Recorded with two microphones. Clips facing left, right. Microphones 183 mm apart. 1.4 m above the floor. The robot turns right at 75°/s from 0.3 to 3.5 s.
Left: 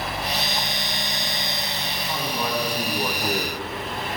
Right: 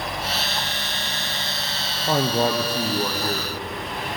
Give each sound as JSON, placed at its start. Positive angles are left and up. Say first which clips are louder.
{"t": 2.1, "sound": "a man speaking", "louder": "right 8 dB", "azimuth_deg": -70, "distance_m": 0.6}